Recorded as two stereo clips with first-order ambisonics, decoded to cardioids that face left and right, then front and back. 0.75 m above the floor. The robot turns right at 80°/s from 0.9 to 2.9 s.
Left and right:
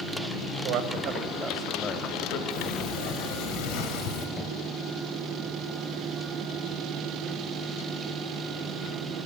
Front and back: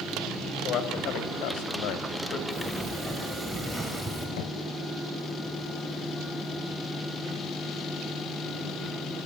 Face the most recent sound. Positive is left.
turn(degrees=10)